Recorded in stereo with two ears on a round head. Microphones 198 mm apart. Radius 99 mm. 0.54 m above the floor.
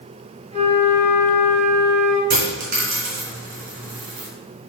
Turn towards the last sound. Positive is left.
turn(degrees=-40)  # may be behind; listen again after turning